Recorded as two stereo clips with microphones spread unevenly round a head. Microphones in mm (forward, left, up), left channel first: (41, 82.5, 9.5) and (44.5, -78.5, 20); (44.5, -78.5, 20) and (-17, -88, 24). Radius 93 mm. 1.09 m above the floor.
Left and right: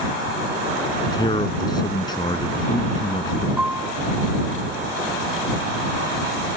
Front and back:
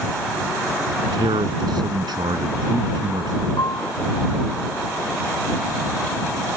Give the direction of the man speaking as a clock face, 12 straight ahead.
7 o'clock.